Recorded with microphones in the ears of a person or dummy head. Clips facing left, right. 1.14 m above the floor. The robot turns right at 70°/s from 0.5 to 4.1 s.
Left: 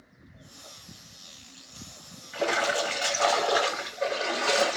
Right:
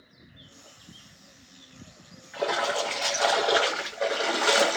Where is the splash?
120° left, 0.9 m; by 4.8 s 115° right, 0.9 m.